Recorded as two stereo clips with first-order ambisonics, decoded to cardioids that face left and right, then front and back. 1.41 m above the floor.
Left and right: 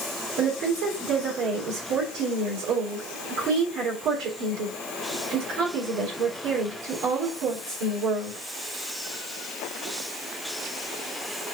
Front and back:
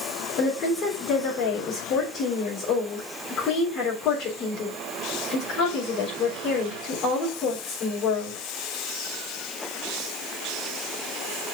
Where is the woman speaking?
55° right, 3.5 m.